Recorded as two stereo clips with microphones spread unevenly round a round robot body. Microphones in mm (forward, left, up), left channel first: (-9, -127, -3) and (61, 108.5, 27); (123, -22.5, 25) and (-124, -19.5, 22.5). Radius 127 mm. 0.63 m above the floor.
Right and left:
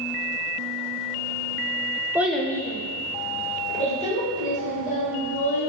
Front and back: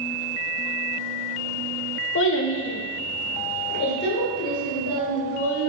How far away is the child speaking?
About 0.5 m.